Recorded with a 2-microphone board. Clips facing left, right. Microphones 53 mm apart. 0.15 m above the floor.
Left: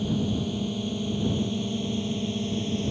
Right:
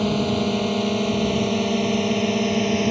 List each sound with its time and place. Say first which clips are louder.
0.0 s a drone: right 6 dB; 75° right (ahead or behind); by 2.9 s 70° right (ahead or behind)